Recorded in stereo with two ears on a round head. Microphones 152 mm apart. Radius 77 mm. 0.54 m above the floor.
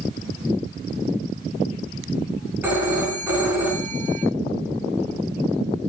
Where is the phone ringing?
10° right (ahead or behind), 3.5 m.